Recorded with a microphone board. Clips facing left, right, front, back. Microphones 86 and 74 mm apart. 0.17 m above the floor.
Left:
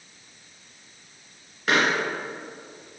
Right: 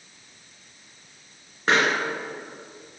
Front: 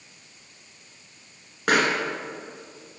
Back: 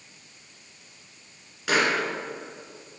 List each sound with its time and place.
1.7 s a pop: 35° right, 2 m